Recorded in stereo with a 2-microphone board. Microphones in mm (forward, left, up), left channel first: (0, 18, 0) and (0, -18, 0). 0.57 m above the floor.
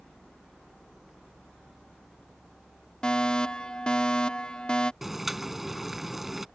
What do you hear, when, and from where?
3.0 s a fire alarm: 25° left (ahead or behind)
5.0 s boiling: 5° right (ahead or behind)